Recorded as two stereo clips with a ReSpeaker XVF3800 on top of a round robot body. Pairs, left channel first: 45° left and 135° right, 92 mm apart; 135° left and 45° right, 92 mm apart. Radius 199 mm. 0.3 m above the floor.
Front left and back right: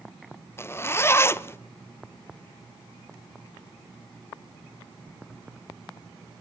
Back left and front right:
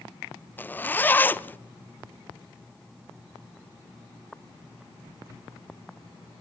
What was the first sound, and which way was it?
A zipper, 80° left.